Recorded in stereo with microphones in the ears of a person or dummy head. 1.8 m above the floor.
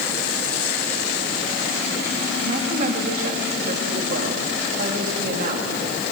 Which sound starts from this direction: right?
A woman speaking, at 2.5 s.